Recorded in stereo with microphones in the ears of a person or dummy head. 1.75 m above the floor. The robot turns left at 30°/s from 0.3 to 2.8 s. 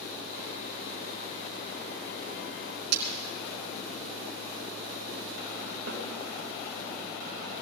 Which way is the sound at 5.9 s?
60° right (ahead or behind).